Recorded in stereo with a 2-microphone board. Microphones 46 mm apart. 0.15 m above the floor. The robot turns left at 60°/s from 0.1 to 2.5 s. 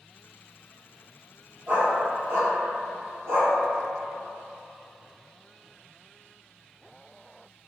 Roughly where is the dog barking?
Right.